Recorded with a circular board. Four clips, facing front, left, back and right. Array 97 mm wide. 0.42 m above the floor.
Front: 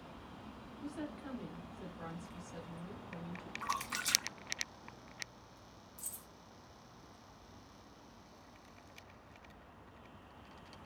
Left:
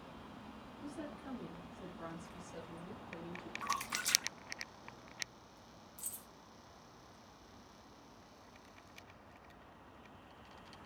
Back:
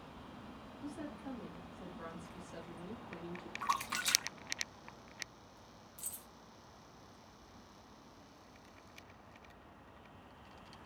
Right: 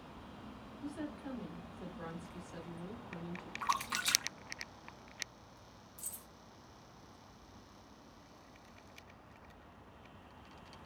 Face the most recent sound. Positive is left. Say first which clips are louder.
# right 1 dB, even
turn(degrees=170)